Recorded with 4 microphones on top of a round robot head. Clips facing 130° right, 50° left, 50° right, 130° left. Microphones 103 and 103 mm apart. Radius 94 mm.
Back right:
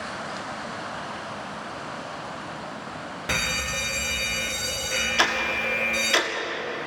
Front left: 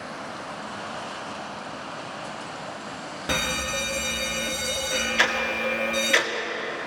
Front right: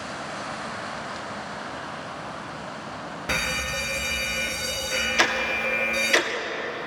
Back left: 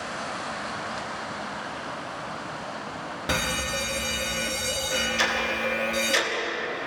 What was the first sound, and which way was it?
A fire alarm, 80° left.